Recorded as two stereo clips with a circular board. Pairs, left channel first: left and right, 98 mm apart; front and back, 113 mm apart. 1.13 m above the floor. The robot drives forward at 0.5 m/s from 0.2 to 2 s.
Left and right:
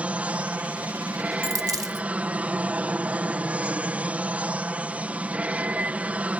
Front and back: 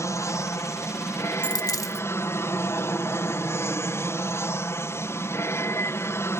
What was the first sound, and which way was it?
An aircraft, 30° right.